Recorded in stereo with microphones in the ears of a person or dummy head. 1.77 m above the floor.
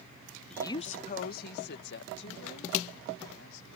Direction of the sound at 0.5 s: 5° left (ahead or behind).